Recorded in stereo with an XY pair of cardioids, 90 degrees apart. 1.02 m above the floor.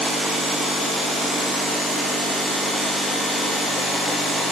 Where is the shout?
No shout in this recording.